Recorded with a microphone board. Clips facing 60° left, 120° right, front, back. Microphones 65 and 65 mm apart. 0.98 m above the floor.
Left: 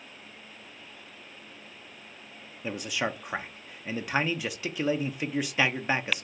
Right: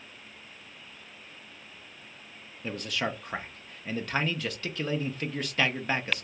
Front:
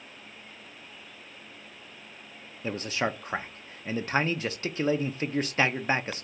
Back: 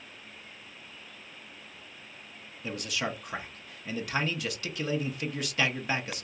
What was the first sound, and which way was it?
A man speaking, 5° right.